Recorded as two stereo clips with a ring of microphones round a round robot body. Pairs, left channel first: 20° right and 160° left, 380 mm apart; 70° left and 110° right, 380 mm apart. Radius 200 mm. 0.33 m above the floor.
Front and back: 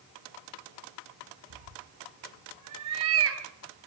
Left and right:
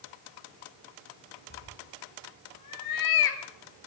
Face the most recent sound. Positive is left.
turn(degrees=100)